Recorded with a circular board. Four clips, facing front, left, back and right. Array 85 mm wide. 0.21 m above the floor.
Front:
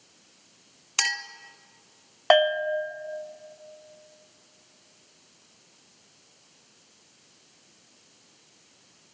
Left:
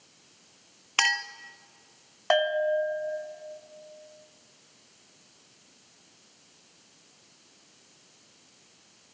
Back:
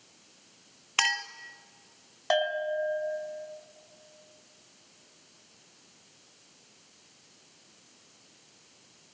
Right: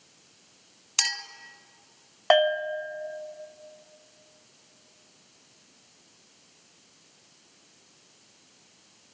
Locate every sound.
1.0 s a clink: 120° left, 0.8 m
2.3 s a bell: 25° right, 1.0 m